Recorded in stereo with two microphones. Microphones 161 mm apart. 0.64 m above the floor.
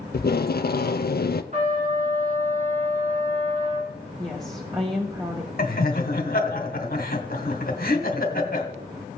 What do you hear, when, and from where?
0.1 s tape being pulled: 65° left (ahead or behind), 0.5 m
1.5 s a trumpet: 45° right (ahead or behind), 5 m
4.2 s a woman speaking: 25° right (ahead or behind), 1.4 m
5.6 s laughter: 65° left (ahead or behind), 2 m